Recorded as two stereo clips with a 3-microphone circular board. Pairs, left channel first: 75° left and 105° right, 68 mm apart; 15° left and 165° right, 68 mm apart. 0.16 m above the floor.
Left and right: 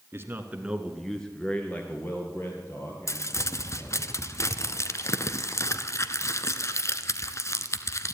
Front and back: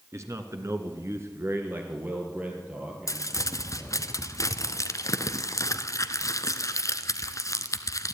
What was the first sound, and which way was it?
A man speaking, 145° right.